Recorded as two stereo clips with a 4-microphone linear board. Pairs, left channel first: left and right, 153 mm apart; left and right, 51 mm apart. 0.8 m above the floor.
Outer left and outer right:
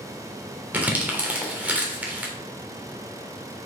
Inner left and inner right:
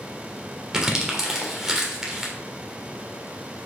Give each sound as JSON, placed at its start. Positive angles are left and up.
{"t": 0.7, "sound": "crumpling", "side_deg": -10, "distance_m": 1.6}